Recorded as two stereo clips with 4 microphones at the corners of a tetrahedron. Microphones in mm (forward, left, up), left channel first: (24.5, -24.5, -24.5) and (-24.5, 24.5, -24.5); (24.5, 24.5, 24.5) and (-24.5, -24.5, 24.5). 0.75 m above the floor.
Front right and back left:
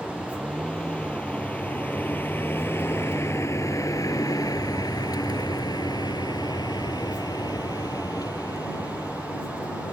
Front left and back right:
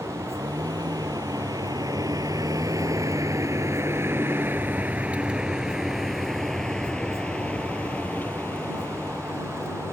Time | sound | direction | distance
0.0 | a vehicle | 125° right | ?